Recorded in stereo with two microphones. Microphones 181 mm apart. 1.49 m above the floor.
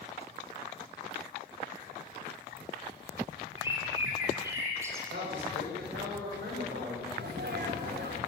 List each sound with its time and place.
3.6 s a bird: 15° right (ahead or behind), 4 m
5.1 s a man speaking: 85° right, 6 m
7.1 s a sneeze: 75° right (ahead or behind), 4.5 m